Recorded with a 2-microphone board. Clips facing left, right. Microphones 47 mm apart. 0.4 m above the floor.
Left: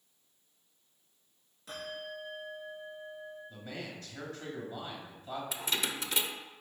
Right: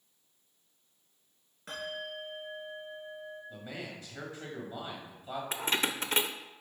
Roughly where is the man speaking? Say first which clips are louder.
Even; centre.